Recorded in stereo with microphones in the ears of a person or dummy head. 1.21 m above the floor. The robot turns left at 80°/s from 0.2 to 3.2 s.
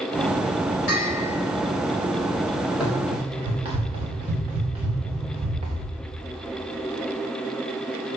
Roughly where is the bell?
Behind left.